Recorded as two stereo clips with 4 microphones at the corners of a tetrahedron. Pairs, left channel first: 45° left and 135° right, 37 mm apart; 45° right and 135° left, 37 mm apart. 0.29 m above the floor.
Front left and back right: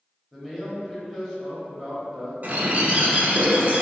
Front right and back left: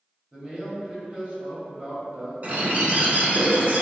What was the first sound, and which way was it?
A man speaking, 130° left.